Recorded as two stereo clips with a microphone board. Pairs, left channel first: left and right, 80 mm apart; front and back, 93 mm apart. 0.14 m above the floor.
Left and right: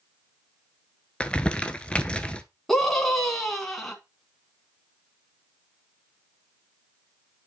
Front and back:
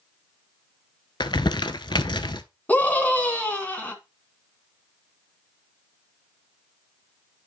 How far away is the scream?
About 1.6 m.